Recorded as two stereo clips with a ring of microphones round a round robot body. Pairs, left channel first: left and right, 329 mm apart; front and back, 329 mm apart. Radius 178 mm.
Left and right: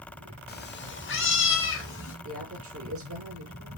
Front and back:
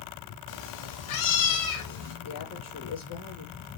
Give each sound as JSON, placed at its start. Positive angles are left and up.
{"t": 0.5, "sound": "a cat meowing", "azimuth_deg": 30, "distance_m": 1.1}
{"t": 2.2, "sound": "a woman speaking", "azimuth_deg": -40, "distance_m": 5.5}